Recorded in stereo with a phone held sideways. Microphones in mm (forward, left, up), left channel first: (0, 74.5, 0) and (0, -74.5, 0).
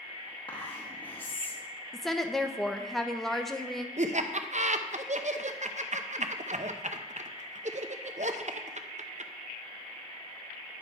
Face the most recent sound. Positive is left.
turn(degrees=-55)  # may be behind; listen again after turning